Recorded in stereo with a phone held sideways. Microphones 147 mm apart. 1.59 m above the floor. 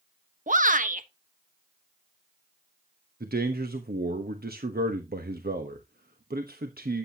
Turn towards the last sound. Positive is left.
turn(degrees=-80)